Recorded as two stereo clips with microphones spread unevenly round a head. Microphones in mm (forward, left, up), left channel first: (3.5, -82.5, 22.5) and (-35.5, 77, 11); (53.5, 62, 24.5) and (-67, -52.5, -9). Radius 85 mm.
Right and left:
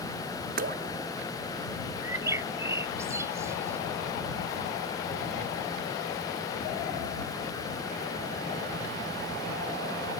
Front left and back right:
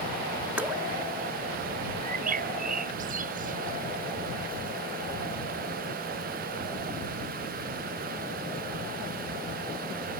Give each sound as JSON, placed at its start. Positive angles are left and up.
{"t": 0.6, "sound": "dripping", "azimuth_deg": 140}
{"t": 2.0, "sound": "a bird", "azimuth_deg": 180}